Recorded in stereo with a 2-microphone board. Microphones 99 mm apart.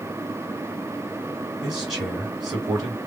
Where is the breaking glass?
I don't hear breaking glass.